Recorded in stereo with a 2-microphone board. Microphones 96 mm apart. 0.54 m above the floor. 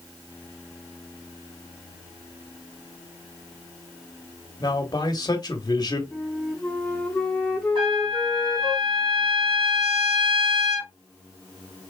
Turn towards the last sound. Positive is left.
turn(degrees=-60)  # may be behind; listen again after turning